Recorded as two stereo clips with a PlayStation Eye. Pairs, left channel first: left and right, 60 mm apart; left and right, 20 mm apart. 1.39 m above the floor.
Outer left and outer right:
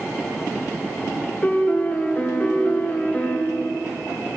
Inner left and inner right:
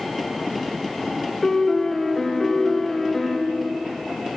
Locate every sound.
1.4 s a piano: 25° left (ahead or behind), 0.7 m